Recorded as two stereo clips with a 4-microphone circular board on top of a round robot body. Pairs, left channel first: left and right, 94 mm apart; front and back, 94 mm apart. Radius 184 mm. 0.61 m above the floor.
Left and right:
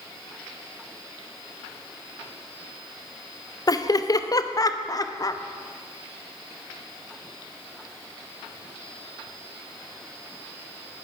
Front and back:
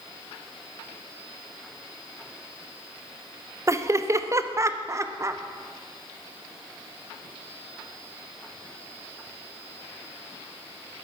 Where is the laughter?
130° left, 0.9 m.